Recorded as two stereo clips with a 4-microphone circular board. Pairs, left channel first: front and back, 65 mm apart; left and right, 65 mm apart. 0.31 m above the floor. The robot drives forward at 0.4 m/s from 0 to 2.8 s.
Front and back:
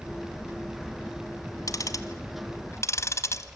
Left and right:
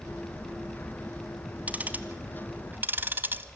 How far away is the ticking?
About 1.5 m.